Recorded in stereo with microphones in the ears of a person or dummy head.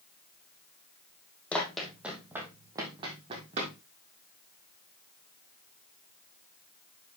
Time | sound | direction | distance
1.5 | running footsteps | 5° left (ahead or behind) | 2.5 m